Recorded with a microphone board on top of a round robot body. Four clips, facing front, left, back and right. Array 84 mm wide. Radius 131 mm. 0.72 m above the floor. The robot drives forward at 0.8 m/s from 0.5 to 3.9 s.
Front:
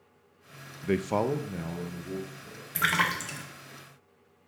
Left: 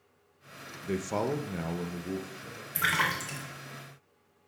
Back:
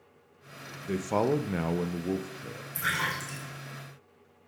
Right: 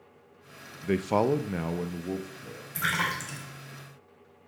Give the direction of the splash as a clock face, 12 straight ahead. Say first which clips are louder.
Left 1 dB, front 4 dB; 12 o'clock.